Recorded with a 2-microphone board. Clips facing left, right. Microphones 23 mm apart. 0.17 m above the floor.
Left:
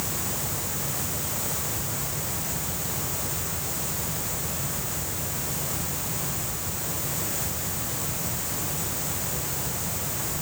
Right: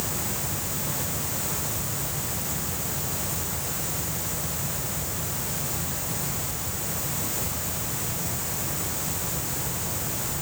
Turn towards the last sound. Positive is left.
No sound to turn to.